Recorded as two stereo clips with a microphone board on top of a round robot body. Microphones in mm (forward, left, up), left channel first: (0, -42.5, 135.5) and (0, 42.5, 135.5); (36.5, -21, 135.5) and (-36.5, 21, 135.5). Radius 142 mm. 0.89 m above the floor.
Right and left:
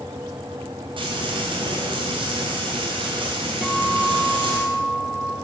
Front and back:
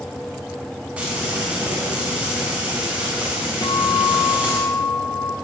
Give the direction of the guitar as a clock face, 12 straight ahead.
12 o'clock.